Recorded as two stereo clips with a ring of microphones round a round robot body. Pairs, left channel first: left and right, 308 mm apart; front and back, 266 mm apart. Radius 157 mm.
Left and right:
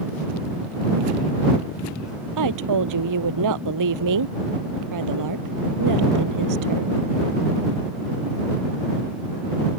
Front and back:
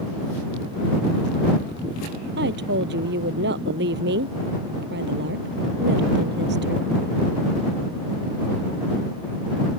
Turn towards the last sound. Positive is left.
turn(degrees=-120)